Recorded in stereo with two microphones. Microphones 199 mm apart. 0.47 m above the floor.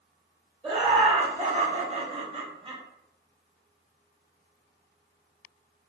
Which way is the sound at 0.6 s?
25° right (ahead or behind).